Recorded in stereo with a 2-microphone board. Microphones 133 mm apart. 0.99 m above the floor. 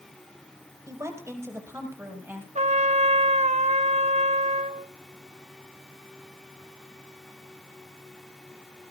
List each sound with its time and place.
0.9 s a woman speaking: 20° right (ahead or behind), 5 m; by 2.5 s 15° right (ahead or behind), 6.5 m
2.5 s a trumpet: 55° right (ahead or behind), 0.8 m